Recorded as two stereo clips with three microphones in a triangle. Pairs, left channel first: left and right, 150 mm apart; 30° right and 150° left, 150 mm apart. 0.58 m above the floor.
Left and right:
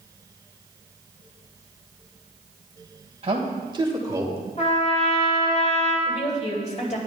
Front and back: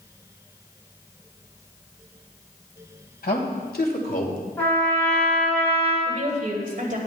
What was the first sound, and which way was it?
A man speaking, 40° right.